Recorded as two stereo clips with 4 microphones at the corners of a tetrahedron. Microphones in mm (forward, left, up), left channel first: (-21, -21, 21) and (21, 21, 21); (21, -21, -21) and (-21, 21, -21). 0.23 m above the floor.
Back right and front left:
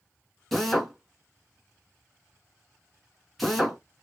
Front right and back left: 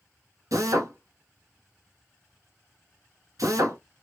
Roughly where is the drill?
Behind left.